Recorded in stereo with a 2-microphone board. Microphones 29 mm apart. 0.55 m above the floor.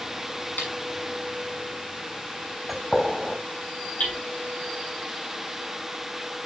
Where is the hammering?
55° left (ahead or behind), 4.5 m.